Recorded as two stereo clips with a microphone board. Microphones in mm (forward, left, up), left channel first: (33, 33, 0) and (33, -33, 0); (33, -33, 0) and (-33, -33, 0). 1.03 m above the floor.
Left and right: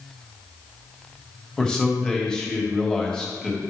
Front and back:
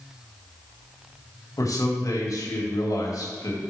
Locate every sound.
1.6 s a man speaking: 15° left, 1.5 m